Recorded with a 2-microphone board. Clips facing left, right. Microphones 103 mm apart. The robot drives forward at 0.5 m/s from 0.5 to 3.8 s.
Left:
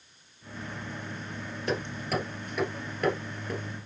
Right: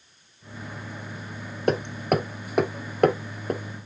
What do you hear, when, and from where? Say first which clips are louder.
1.7 s hammering: right 8 dB; 50° right (ahead or behind), 1.2 m